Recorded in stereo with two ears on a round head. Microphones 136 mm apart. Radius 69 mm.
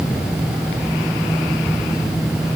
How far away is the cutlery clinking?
I don't hear cutlery clinking.